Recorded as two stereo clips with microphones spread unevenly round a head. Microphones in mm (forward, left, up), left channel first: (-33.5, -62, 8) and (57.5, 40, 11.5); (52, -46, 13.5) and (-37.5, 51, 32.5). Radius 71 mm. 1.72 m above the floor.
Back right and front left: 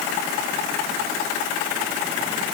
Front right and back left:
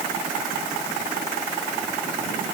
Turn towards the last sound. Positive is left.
No sound to turn to.